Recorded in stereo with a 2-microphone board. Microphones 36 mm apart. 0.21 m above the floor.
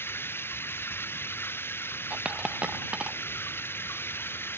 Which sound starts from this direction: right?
A dropped coin, at 2.1 s.